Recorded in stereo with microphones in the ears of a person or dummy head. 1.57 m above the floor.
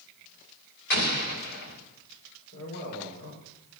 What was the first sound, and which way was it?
An explosion, 45° left (ahead or behind).